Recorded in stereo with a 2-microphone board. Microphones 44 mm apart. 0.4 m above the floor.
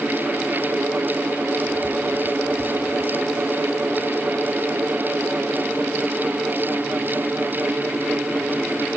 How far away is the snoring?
I don't hear snoring.